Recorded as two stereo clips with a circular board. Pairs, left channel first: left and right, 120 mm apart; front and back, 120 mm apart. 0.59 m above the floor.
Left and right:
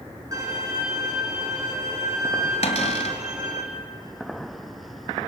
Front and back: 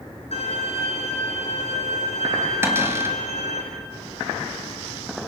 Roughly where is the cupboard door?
Left.